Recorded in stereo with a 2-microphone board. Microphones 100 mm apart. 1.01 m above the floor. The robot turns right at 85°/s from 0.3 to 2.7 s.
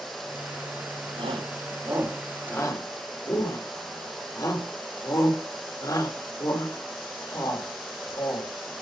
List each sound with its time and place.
1.2 s a shout: 80° right, 4.5 m; by 8.5 s 40° left (ahead or behind), 4.5 m